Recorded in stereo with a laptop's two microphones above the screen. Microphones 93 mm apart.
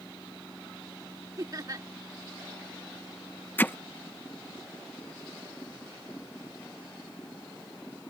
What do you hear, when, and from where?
0.0 s a machine running: 30° left (ahead or behind)
1.4 s laughter: 40° right (ahead or behind)
3.6 s hammering: 20° left (ahead or behind)